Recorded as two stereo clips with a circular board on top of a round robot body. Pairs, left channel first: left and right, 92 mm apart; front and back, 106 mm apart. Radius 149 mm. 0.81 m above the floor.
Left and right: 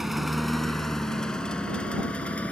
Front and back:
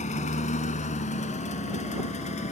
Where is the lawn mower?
5° right; by 2.5 s 10° left.